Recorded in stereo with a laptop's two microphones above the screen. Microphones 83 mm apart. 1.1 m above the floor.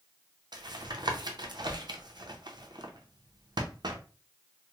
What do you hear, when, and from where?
0.5 s tapping: 60° right (ahead or behind), 0.5 m